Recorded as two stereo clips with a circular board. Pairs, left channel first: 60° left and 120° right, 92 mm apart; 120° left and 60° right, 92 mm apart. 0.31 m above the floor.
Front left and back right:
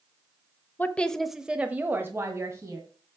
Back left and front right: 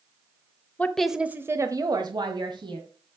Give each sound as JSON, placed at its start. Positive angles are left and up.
{"t": 0.8, "sound": "a woman speaking", "azimuth_deg": 80, "distance_m": 0.9}